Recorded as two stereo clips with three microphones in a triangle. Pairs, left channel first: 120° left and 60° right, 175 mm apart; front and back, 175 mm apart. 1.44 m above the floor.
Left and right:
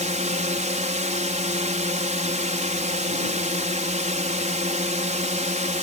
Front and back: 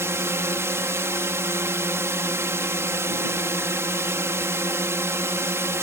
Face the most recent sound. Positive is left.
turn(degrees=-105)